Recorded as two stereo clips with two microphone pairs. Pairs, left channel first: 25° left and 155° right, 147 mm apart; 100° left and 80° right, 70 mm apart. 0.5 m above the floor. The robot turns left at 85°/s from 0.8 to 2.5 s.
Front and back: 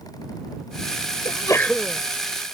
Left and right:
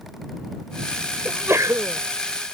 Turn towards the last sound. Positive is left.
turn(degrees=-125)